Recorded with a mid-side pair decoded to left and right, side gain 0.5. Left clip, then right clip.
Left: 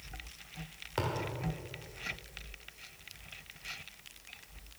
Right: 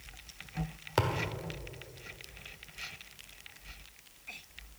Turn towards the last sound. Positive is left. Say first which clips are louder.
# right 4 dB
turn(degrees=-40)